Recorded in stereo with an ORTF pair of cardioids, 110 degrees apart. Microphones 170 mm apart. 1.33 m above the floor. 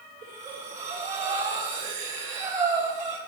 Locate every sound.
0.2 s breathing: 50° right, 9.5 m